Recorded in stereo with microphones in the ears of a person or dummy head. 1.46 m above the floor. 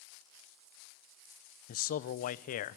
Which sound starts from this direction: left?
A man speaking, at 1.7 s.